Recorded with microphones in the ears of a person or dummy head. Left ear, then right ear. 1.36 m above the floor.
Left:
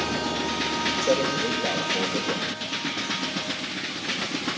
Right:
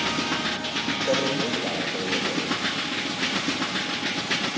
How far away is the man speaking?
About 5.5 m.